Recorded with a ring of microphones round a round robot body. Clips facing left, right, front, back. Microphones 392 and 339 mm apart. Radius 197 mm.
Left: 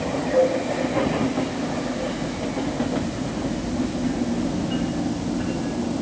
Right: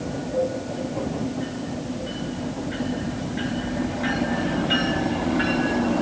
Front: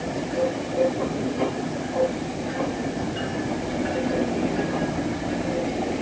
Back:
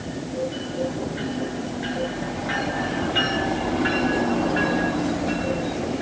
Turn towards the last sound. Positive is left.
No sound to turn to.